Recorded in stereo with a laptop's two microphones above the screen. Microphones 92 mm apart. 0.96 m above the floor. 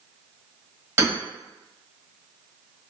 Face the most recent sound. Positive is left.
turn(degrees=-25)  # may be behind; listen again after turning